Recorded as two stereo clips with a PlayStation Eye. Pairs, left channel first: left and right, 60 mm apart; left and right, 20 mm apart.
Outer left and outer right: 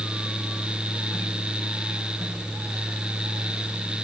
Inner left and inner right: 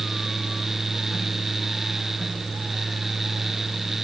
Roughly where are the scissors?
No scissors in this recording.